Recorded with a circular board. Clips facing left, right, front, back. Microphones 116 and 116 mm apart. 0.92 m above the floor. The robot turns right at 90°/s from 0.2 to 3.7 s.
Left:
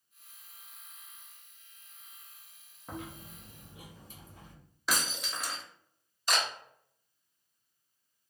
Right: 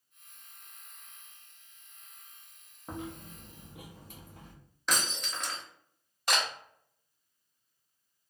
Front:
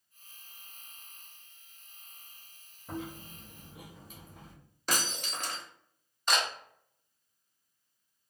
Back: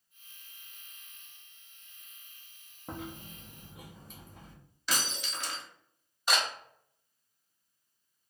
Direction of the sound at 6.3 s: 95° right.